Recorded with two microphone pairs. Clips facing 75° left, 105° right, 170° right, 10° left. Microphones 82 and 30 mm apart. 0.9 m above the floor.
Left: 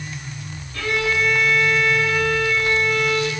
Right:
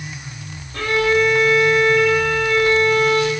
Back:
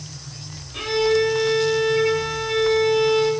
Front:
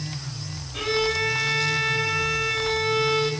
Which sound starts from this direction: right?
A violin, at 0.7 s.